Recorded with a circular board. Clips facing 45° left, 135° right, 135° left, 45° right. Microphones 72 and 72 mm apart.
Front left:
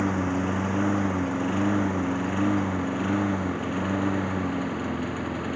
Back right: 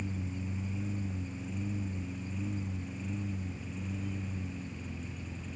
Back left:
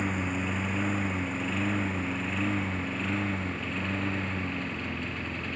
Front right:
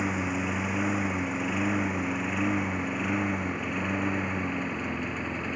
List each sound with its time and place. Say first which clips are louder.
0.0 s a lawn mower: front left 15 dB, front right 2 dB; 35° left; by 5.6 s 25° left